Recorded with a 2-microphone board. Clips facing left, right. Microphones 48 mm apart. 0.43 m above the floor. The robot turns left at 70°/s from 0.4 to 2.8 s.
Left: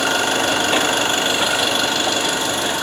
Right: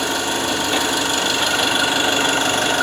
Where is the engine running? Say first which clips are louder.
Left 3 dB; 90° left, 1.8 m; by 2.8 s 80° right, 1.8 m.